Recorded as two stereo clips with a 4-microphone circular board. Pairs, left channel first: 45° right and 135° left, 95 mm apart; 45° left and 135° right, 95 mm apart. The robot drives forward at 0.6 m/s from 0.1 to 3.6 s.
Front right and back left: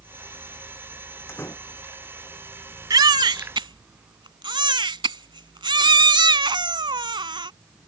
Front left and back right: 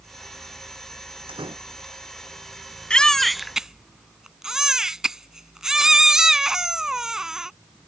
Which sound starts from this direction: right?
A door slam, at 1.3 s.